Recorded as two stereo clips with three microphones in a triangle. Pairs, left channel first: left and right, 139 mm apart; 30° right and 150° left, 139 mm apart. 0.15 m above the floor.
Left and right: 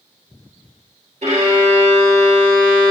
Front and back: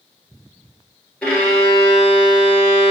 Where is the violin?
110° right, 1.5 m.